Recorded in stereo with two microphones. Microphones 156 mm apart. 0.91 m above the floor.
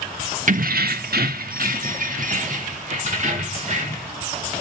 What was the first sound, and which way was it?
Keys jangling, 55° right (ahead or behind).